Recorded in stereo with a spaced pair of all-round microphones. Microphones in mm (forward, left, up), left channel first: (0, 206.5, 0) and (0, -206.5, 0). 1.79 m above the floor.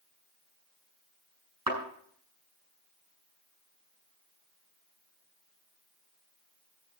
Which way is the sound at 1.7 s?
60° right (ahead or behind).